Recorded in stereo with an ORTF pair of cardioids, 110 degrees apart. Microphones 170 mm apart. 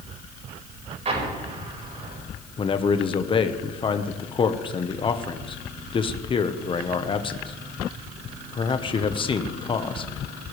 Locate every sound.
1.1 s an explosion: 40° right, 5.5 m
2.6 s a man speaking: 30° left, 1.2 m